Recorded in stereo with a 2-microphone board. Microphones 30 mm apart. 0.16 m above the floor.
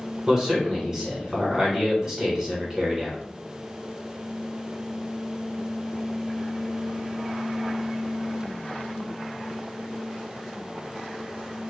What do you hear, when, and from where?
0.3 s a man speaking: 20° right (ahead or behind), 1.2 m